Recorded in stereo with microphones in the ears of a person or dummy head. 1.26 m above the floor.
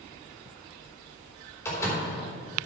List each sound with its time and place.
1.6 s a door slam: 20° left (ahead or behind), 3.5 m